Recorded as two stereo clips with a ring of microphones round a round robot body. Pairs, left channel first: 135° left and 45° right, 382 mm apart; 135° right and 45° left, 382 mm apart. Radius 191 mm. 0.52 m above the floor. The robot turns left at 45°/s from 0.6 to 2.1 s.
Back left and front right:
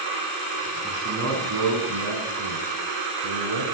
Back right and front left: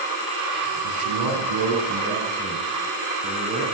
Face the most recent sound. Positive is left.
turn(degrees=-25)